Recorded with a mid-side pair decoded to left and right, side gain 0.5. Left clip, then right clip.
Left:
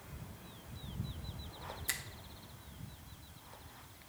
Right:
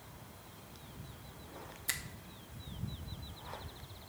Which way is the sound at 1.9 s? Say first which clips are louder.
Right 1 dB; 5° right.